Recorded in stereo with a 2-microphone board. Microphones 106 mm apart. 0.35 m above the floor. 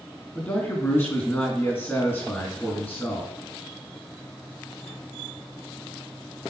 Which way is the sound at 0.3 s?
20° left (ahead or behind).